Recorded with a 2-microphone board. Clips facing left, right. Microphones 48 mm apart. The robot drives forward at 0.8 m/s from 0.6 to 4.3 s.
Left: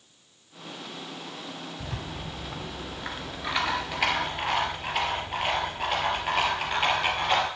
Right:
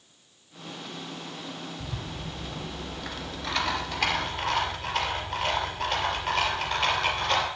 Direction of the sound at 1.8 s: 55° left (ahead or behind).